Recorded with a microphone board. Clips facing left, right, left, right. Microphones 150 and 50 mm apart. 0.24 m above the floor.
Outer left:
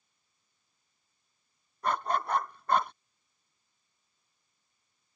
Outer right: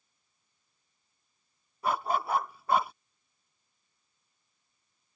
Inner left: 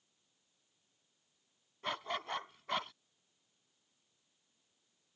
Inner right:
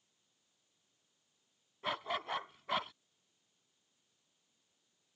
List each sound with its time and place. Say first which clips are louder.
1.8 s a dog barking: outer right 1 dB, inner right 1 dB; 5° right (ahead or behind)